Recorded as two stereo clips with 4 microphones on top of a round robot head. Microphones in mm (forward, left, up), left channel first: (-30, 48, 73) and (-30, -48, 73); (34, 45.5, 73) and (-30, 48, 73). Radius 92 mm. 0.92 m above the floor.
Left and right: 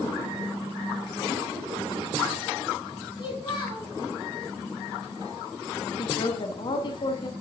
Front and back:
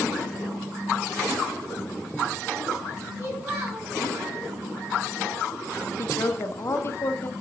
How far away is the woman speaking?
About 1.2 m.